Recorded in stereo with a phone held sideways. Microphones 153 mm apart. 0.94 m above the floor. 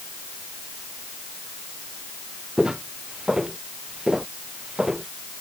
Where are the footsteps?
5° right (ahead or behind).